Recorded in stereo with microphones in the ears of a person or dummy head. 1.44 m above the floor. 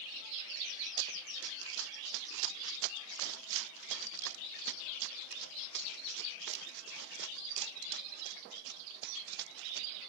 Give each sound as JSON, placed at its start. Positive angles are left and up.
{"t": 1.0, "sound": "running footsteps", "side_deg": -75}